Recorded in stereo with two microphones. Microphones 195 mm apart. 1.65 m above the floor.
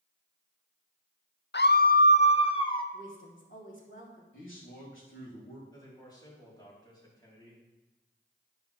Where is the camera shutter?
No camera shutter in this recording.